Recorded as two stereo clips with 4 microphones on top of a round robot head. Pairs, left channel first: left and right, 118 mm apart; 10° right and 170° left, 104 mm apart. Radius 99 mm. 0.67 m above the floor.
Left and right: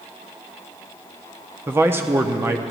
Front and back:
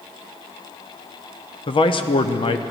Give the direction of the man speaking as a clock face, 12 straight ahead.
1 o'clock.